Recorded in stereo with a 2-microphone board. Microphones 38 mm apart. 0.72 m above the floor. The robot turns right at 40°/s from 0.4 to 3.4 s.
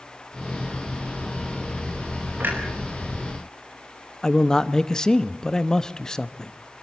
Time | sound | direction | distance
2.4 | a clunk | 60° right (ahead or behind) | 4.5 m
4.2 | a man speaking | 20° left (ahead or behind) | 0.7 m